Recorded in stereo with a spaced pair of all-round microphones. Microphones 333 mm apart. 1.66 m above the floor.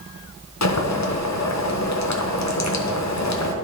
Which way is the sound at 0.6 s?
55° left (ahead or behind).